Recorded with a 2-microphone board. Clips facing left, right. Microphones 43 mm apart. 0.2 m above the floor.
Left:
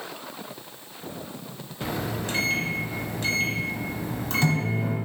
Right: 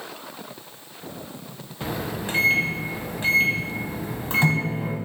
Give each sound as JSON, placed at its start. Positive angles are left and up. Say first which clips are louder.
{"t": 1.8, "sound": "a microwave", "louder": "right 1 dB", "side_deg": -20, "distance_m": 0.8}